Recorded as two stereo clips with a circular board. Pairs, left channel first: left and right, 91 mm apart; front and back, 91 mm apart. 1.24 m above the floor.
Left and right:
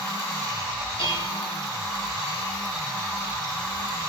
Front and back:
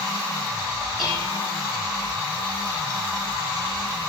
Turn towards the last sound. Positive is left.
turn(degrees=95)